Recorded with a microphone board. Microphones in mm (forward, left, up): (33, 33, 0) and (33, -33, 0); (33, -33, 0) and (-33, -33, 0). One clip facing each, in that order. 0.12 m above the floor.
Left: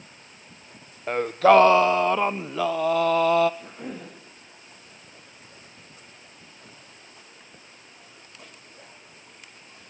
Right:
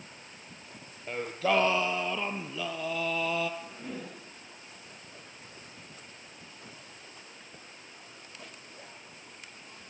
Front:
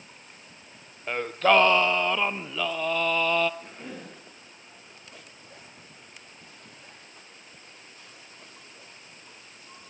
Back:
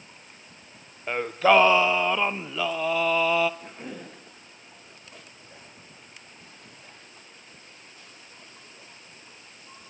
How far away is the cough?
About 7.5 m.